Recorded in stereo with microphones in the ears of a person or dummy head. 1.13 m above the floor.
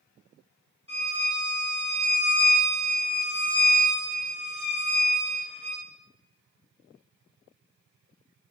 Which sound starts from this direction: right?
A violin, at 0.9 s.